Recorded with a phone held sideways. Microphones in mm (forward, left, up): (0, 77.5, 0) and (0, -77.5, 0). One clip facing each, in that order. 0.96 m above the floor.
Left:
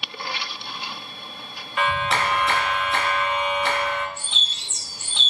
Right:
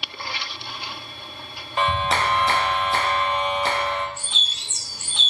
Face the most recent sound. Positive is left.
turn(degrees=-5)  # may be behind; listen again after turning